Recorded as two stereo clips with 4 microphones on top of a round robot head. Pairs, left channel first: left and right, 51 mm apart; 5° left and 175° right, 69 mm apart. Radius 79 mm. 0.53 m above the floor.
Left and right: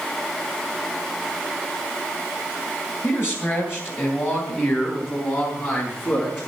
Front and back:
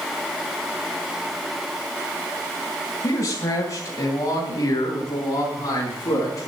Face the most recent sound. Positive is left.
turn(degrees=45)